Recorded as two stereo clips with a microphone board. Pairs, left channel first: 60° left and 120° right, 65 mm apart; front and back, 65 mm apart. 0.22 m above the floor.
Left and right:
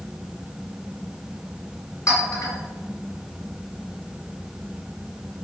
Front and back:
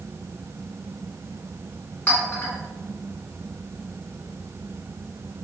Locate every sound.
2.1 s a clink: 60° left, 1.3 m